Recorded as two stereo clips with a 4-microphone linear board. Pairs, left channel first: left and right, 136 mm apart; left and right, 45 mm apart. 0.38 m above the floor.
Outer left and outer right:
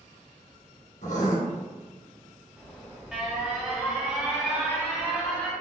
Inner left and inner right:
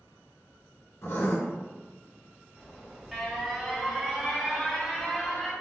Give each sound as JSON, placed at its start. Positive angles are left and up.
{"t": 1.0, "sound": "writing", "side_deg": 70, "distance_m": 1.8}
{"t": 2.6, "sound": "an alarm", "side_deg": -5, "distance_m": 1.4}